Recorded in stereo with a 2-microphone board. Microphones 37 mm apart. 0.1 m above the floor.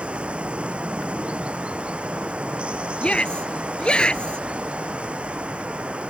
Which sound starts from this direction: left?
A shout, at 3.0 s.